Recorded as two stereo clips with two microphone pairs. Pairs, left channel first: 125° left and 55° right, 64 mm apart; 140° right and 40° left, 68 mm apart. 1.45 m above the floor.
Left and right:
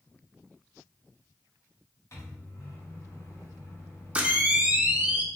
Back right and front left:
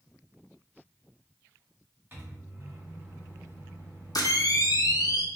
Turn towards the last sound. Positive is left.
turn(degrees=-125)